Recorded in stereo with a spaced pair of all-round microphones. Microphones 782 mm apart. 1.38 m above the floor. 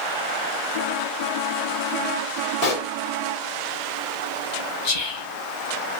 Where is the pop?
55° left (ahead or behind), 0.9 m.